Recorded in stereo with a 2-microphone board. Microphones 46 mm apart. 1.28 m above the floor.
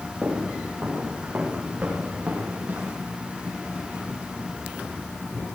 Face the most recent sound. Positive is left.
turn(degrees=-55)  # may be behind; listen again after turning